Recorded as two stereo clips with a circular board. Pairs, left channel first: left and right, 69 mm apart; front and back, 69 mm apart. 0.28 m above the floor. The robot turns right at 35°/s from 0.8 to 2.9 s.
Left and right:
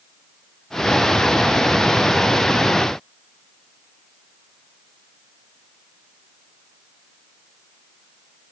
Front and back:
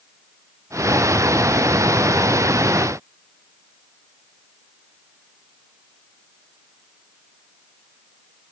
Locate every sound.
Only background noise.